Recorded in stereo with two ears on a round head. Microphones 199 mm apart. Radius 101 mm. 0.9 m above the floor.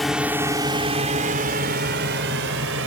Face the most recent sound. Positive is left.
turn(degrees=-60)  # may be behind; listen again after turning